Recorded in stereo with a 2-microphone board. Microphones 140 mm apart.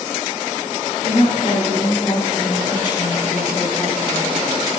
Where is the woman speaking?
55° left (ahead or behind), 2 m; by 4.4 s 5° left (ahead or behind), 1.6 m.